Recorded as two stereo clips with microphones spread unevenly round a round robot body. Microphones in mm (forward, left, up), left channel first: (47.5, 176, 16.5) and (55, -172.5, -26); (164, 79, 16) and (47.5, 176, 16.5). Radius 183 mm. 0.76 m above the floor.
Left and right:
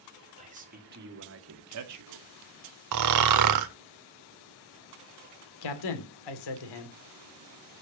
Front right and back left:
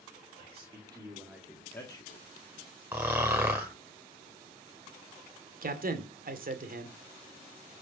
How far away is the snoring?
About 0.8 m.